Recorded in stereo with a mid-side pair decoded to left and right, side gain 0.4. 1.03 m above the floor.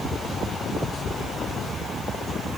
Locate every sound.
Only background noise.